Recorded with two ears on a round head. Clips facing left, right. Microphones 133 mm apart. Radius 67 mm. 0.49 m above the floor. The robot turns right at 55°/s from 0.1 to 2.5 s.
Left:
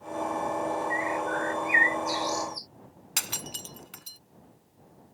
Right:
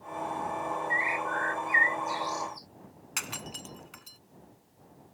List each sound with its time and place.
0.9 s a bird: 25° right; by 2.7 s 60° left
3.2 s breaking glass: 45° left (ahead or behind)